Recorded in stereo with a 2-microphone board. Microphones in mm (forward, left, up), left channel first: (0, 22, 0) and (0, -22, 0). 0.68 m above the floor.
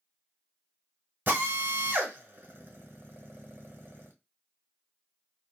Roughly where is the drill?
Right.